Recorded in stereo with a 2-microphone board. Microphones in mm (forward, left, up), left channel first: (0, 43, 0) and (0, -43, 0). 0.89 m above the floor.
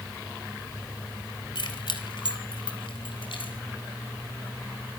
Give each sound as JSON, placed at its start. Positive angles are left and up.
{"t": 1.6, "sound": "keys jangling", "side_deg": 65, "distance_m": 3.0}